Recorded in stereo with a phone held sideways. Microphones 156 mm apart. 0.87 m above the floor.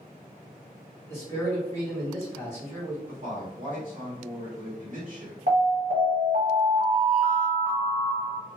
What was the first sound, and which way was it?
A man speaking, 15° left (ahead or behind).